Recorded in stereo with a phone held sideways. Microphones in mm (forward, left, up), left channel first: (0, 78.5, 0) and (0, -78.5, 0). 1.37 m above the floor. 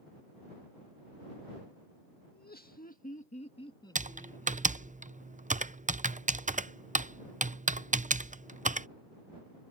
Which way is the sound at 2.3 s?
85° left.